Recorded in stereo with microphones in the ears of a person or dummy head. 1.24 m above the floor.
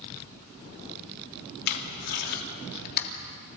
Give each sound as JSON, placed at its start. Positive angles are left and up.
{"t": 1.7, "sound": "tape being pulled", "side_deg": 55, "distance_m": 2.5}